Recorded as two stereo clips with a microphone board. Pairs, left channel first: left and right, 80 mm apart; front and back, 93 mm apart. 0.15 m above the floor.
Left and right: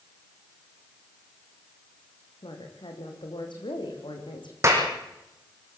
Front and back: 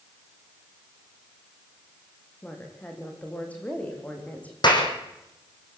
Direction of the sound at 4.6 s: 35° right.